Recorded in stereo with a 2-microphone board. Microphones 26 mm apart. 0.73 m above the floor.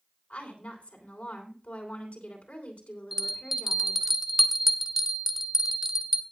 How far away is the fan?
No fan in this recording.